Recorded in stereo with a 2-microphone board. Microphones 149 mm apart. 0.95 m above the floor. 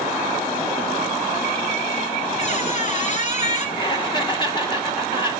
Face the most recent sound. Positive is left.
turn(degrees=30)  # may be behind; listen again after turning